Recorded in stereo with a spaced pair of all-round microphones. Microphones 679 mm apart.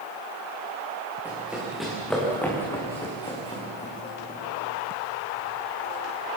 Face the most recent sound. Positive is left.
turn(degrees=10)  # may be behind; listen again after turning